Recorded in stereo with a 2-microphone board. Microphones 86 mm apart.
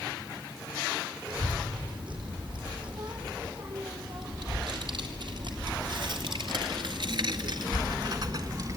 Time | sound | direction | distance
1.3 | a child speaking | 65° right (ahead or behind) | 6 m